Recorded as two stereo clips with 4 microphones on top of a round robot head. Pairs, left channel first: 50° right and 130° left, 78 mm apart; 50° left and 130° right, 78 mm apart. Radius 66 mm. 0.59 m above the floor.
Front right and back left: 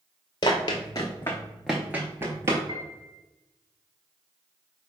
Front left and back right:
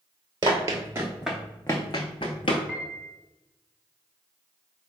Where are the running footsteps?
90° right, 0.8 m; by 2.6 s 75° left, 0.8 m.